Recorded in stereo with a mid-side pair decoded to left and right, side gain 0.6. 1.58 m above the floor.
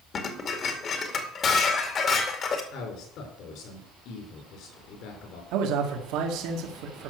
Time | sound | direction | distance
0.1 | dishes clattering | 45° left | 2 m
2.7 | a man speaking | 65° left | 5 m
5.5 | a man speaking | 70° right | 2.5 m